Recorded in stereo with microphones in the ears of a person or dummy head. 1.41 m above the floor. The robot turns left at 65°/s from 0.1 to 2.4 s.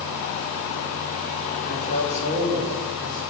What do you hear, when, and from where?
1.6 s a man speaking: 50° left, 3 m; by 3.2 s straight ahead, 3 m